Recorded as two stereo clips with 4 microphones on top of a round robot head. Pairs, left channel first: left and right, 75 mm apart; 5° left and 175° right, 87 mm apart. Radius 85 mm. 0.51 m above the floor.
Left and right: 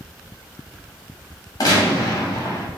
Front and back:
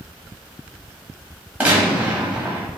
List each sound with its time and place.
1.6 s a gunshot: 115° left, 1.5 m